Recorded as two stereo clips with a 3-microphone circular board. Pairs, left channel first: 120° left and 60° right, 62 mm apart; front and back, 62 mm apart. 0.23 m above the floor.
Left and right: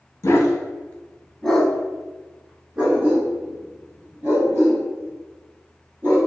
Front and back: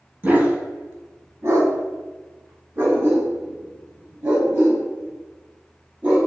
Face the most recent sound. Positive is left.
turn(degrees=-120)